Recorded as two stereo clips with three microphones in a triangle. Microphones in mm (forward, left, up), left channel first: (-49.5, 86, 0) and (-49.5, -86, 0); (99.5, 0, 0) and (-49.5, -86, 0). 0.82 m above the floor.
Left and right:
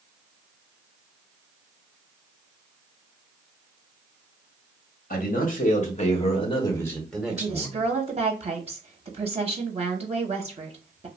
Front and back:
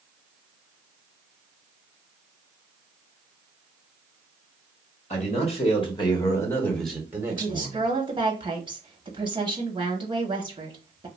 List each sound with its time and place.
5.1 s a man speaking: 70° left, 1.4 m; by 7.9 s 135° right, 0.9 m
7.3 s a woman speaking: 105° right, 0.7 m